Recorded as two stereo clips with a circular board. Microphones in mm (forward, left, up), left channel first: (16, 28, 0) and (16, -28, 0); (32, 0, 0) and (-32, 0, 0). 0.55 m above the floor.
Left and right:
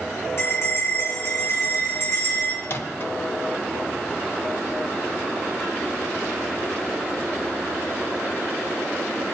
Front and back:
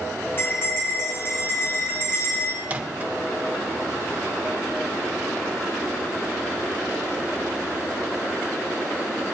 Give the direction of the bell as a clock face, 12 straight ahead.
10 o'clock.